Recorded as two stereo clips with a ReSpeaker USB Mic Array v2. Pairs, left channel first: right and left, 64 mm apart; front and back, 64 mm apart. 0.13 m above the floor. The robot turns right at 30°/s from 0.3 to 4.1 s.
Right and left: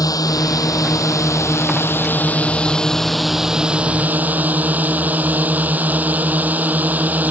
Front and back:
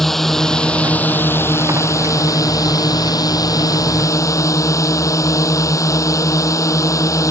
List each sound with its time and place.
0.0 s a drone: 85° right; by 7.3 s 30° left